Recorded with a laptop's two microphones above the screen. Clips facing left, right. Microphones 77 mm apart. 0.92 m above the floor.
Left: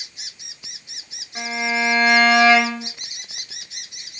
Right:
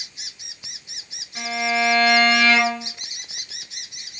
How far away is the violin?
About 3.5 m.